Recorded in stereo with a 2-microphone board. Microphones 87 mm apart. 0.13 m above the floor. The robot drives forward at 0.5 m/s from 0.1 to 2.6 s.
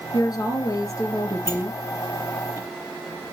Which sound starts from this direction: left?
A woman speaking, at 0.1 s.